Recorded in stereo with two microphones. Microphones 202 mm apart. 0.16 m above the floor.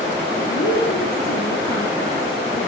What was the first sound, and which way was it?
A woman speaking, 80° left.